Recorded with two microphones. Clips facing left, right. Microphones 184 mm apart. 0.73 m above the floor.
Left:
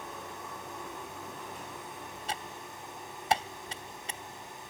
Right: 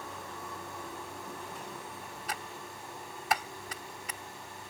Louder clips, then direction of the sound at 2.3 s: Left 1 dB; 25° left (ahead or behind).